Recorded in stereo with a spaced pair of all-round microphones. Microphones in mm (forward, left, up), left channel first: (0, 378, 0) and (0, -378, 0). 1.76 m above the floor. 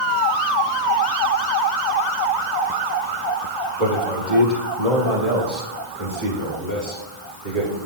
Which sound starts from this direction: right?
A man speaking, at 3.8 s.